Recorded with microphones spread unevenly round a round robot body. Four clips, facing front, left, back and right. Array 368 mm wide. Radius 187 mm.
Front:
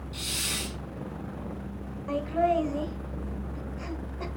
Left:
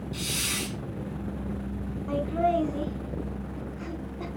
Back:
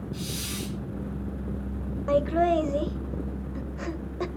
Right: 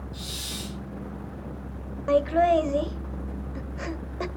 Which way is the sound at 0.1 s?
75° left.